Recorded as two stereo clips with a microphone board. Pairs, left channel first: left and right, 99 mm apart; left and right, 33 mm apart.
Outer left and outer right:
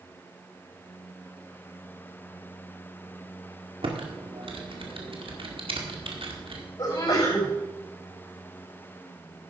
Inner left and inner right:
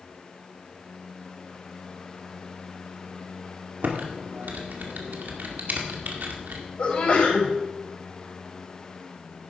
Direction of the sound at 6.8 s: 45° left (ahead or behind).